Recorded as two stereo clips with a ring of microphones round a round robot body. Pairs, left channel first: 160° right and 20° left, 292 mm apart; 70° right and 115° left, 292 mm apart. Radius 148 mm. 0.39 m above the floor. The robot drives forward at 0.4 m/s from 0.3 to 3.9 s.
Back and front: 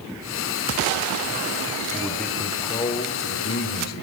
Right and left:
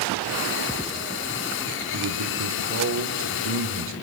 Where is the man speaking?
110° left, 1.0 m; by 3.9 s 150° left, 1.4 m.